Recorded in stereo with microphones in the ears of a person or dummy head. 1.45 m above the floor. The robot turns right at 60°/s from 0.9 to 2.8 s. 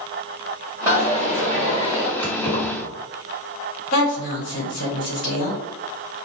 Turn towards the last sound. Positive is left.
turn(degrees=65)  # may be behind; listen again after turning